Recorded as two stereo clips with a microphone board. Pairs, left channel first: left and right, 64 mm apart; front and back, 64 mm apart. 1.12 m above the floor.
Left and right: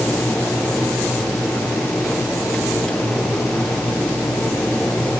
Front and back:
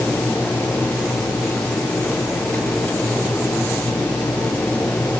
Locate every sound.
Only background noise.